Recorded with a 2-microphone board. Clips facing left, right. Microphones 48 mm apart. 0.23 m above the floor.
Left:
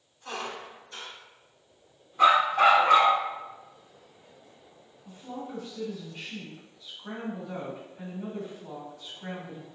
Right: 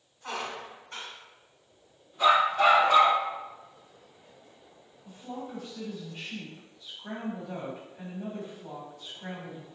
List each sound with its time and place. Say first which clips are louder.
0.2 s a squeak: right 1 dB; 55° right (ahead or behind), 1.3 m
2.2 s a dog barking: left 2 dB; 45° left (ahead or behind), 0.9 m
5.0 s a woman speaking: even; 20° right (ahead or behind), 1.5 m